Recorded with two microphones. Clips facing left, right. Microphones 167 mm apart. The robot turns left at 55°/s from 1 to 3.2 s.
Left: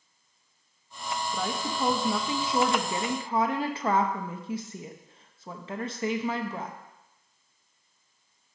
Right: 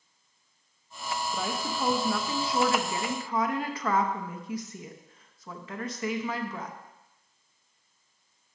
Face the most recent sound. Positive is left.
turn(degrees=30)  # may be behind; listen again after turning